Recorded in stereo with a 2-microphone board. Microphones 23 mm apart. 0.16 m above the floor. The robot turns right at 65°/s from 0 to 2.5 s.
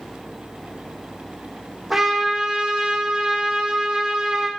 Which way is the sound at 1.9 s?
175° right.